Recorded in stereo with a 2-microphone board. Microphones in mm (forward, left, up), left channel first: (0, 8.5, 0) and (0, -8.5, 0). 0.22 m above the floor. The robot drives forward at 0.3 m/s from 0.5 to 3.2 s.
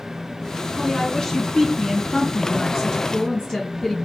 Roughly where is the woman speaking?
Left.